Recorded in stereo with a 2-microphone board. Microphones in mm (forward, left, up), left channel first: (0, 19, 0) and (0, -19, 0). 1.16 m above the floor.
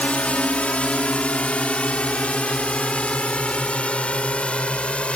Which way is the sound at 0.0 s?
35° left (ahead or behind).